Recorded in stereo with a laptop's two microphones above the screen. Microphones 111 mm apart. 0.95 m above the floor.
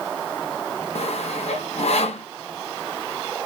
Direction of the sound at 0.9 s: 70° left (ahead or behind).